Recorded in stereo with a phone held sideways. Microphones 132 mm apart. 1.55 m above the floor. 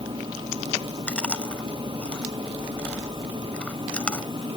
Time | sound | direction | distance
0.0 | a machine running | 40° right (ahead or behind) | ?
1.1 | chewing | 10° left (ahead or behind) | ?